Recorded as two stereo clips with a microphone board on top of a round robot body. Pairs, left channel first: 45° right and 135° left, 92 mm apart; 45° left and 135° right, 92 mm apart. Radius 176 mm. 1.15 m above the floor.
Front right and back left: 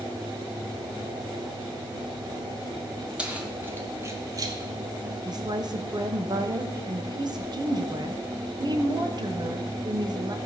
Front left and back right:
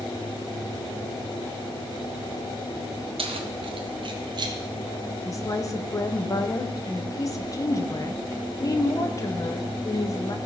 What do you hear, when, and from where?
3.2 s keys jangling: 145° right, 1.3 m; by 4.6 s 175° right, 1.4 m
5.2 s a woman speaking: 95° left, 1.7 m